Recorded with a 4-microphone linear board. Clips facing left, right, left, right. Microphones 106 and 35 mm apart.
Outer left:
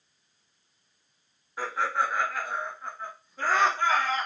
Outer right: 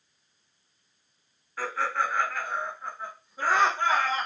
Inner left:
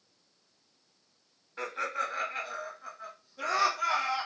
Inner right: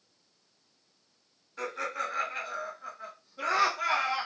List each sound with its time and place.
1.6 s laughter: 20° left (ahead or behind), 1.3 m; by 4.3 s 25° right (ahead or behind), 1.5 m